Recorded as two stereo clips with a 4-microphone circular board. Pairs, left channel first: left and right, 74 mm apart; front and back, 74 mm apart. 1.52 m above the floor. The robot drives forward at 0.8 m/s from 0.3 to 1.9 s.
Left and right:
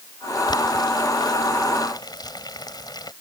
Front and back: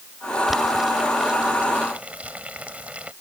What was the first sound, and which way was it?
Boiling, 95° left.